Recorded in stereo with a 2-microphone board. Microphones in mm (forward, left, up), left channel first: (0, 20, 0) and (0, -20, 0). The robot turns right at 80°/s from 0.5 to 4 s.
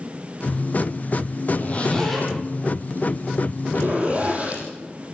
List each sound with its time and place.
1.5 s a zipper: 55° left (ahead or behind), 9 m; by 4.6 s 35° right (ahead or behind), 9 m